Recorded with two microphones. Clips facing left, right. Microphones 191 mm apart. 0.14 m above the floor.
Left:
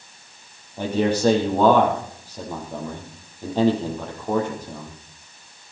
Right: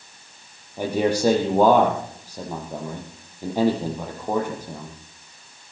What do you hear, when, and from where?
0.8 s a man speaking: 10° right (ahead or behind), 6 m